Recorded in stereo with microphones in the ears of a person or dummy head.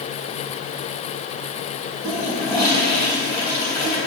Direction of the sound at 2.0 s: 20° left (ahead or behind).